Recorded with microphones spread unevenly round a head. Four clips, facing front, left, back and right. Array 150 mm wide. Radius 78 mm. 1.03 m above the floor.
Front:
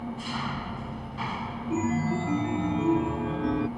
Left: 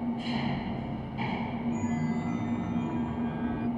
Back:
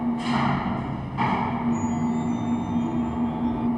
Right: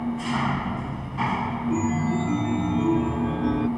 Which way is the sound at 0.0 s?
170° right.